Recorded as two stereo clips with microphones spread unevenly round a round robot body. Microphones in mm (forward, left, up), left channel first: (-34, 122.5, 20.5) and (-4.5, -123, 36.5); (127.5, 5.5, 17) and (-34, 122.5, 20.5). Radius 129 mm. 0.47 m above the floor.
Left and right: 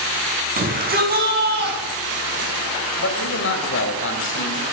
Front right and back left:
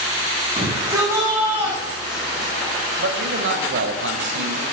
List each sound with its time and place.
0.6 s a shout: 140° right, 5.5 m; by 2.5 s 125° right, 5 m
3.0 s a man speaking: 130° left, 3 m